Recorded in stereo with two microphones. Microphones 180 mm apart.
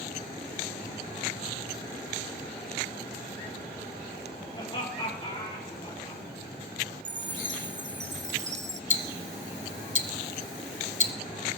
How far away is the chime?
About 0.8 m.